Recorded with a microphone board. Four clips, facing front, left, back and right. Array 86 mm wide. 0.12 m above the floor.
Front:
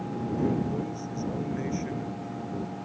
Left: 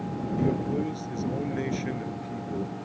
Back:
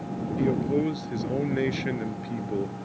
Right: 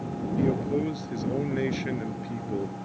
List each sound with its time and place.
0.4 s a man speaking: 160° right